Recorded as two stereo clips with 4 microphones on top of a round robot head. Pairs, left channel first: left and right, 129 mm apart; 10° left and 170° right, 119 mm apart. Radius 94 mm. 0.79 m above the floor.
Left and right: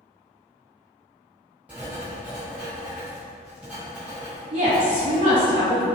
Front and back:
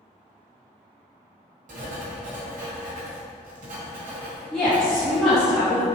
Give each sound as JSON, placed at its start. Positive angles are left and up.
{"t": 1.7, "sound": "writing", "azimuth_deg": -175, "distance_m": 1.3}
{"t": 4.5, "sound": "a woman speaking", "azimuth_deg": -70, "distance_m": 1.2}